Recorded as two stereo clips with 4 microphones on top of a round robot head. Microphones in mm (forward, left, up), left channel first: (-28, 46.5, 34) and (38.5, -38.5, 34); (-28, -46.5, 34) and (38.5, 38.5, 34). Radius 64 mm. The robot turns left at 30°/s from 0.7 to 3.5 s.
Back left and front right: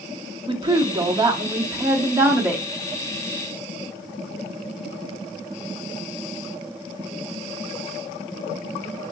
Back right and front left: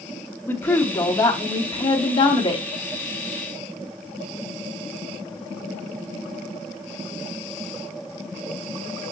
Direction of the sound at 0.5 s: 70° right.